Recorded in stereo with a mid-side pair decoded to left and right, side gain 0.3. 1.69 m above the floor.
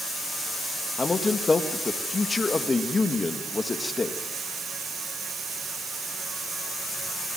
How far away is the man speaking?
About 2 m.